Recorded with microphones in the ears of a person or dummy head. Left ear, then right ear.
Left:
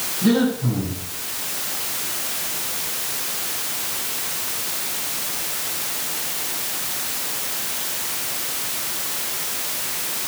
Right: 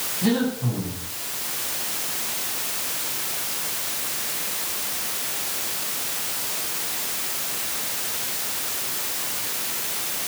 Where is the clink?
No clink in this recording.